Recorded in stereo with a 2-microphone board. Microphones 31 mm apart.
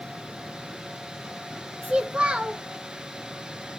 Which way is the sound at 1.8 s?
40° right (ahead or behind).